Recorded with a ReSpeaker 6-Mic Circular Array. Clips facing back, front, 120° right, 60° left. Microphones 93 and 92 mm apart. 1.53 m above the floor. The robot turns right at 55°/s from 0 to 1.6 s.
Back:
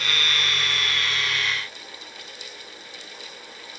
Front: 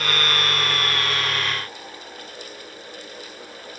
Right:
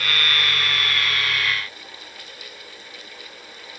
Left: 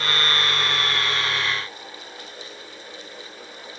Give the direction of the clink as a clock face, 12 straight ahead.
I don't hear a clink.